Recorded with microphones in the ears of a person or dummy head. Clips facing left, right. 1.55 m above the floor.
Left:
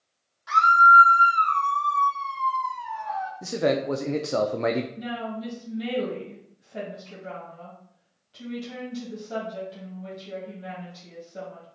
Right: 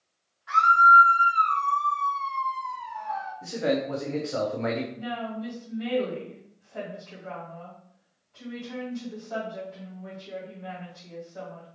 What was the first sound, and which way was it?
A scream, 60° left (ahead or behind).